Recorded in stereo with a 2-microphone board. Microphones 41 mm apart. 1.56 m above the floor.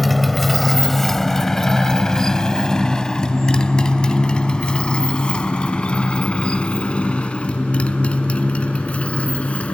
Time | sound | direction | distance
0.0 | a motorcycle | centre (ahead or behind) | ?